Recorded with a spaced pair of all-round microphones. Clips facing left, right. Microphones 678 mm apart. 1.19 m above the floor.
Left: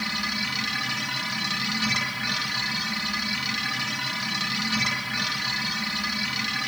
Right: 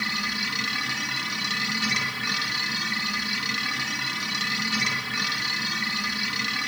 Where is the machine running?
20° left (ahead or behind), 1.6 m.